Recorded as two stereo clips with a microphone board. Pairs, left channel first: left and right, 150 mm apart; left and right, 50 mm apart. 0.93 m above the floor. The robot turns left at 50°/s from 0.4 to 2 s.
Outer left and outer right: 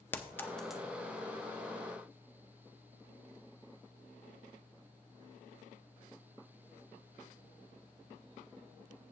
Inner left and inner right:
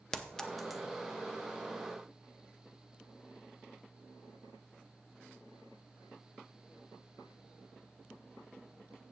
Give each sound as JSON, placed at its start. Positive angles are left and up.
{"t": 0.1, "sound": "a clink", "side_deg": 15, "distance_m": 0.6}